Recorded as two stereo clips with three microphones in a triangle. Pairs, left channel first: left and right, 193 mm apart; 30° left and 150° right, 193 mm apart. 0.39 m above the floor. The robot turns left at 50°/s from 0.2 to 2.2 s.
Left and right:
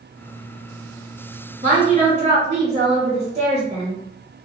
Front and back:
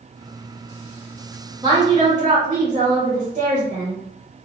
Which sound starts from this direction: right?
A woman speaking, at 1.6 s.